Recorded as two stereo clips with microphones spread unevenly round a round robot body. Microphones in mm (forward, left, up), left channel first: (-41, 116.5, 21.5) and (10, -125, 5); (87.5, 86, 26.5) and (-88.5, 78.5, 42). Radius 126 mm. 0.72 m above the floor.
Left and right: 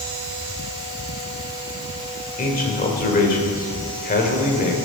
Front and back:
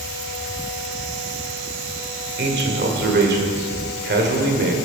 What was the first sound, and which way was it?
A man speaking, 160° left.